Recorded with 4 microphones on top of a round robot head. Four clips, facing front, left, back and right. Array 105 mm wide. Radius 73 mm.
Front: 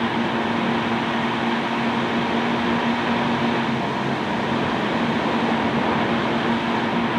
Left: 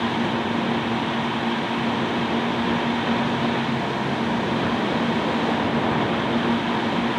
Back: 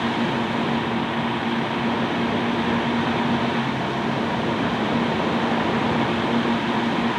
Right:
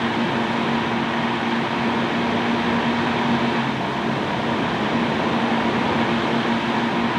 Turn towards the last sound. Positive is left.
No sound to turn to.